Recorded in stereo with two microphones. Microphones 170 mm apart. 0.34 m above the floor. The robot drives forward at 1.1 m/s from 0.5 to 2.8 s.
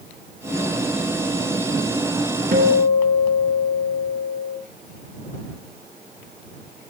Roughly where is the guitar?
Right.